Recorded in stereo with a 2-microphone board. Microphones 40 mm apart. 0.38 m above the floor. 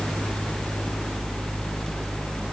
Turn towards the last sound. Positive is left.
No sound to turn to.